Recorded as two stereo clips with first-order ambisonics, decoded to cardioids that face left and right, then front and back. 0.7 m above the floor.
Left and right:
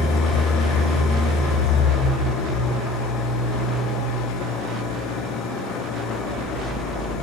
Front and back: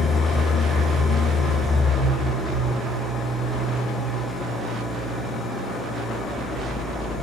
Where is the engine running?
75° left, 3.5 m.